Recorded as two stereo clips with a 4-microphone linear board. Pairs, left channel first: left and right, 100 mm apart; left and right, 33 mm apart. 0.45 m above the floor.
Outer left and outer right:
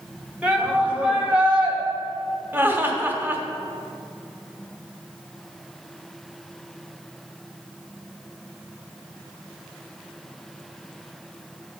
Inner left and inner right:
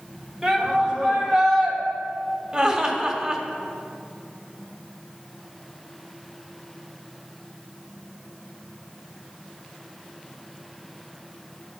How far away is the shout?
About 1.7 m.